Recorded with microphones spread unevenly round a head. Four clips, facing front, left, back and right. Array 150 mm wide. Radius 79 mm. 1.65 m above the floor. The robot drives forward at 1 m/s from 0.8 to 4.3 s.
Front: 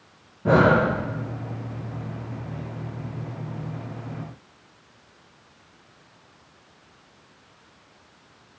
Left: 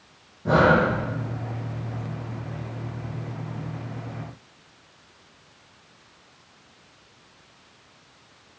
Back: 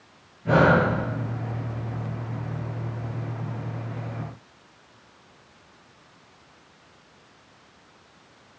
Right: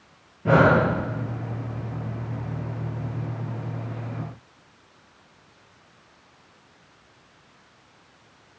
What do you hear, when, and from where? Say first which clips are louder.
0.5 s breathing: right 1 dB, front 1 dB; 15° right, 10 m